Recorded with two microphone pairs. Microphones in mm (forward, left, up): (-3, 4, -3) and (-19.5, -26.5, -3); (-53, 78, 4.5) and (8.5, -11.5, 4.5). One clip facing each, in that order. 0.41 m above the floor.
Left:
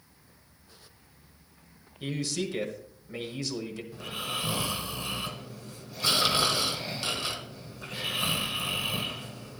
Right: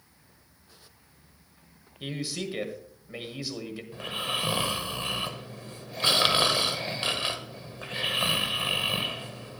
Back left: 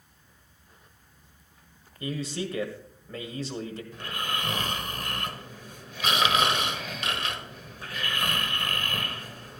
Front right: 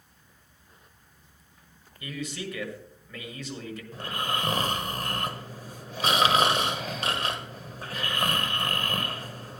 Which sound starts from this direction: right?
Snoring, at 3.9 s.